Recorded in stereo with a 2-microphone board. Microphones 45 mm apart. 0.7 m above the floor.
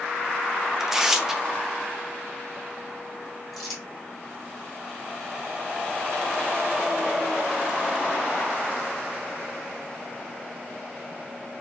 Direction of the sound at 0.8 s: 10° right (ahead or behind).